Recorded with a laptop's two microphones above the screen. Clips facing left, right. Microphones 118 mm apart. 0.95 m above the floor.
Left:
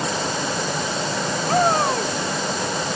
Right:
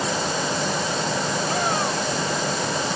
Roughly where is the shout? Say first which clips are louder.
Left 9 dB; left.